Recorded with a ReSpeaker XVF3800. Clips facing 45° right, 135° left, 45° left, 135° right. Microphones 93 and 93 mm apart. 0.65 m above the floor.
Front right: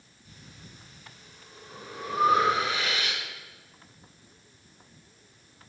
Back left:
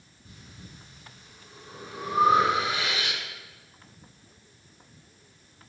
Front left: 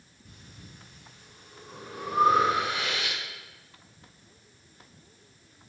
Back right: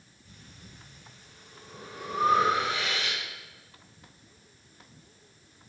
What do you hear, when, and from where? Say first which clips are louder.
0.2 s breathing: back left 2 dB, front left 1 dB; 80° left, 4.5 m